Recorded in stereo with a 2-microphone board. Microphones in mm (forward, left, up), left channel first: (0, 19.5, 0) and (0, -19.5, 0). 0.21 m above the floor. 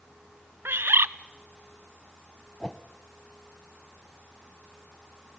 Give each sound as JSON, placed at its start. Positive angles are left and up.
{"t": 0.7, "sound": "a bird", "side_deg": -75, "distance_m": 0.5}
{"t": 2.6, "sound": "a whoosh", "side_deg": 20, "distance_m": 0.8}